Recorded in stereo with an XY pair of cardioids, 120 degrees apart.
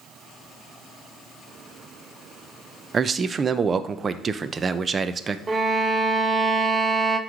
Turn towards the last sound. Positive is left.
turn(degrees=-30)